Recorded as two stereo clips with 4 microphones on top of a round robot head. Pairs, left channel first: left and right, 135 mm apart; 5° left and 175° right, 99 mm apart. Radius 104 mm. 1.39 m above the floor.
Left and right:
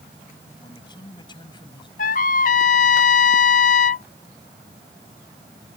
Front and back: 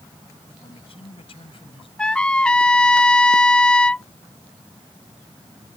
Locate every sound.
0.6 s a man speaking: 30° left; by 1.9 s 35° left
2.0 s a trumpet: 85° left